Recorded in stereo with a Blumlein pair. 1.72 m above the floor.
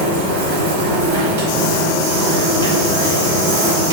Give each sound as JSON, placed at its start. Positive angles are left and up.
{"t": 0.0, "sound": "a machine running", "azimuth_deg": -55, "distance_m": 2.0}